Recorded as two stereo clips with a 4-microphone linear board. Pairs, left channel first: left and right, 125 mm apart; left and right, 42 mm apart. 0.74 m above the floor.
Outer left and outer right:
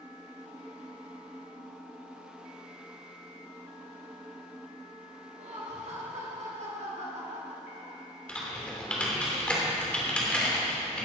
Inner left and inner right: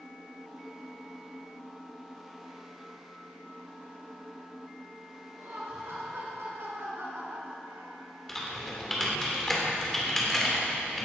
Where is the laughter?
65° right (ahead or behind), 4.5 m; by 8.1 s 70° right (ahead or behind), 3 m.